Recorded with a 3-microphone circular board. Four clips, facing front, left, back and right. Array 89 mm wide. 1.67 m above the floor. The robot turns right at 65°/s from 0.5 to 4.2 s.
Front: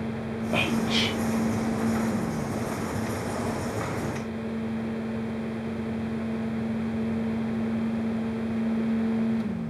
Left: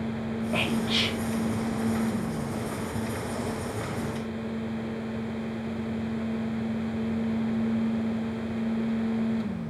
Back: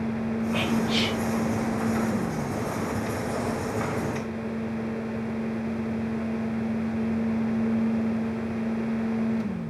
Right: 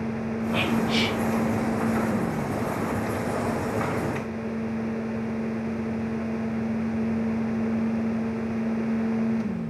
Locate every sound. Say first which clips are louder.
0.5 s whispering: right 4 dB, front 1 dB; 5° left, 1.7 m; by 1.2 s 45° left, 1.7 m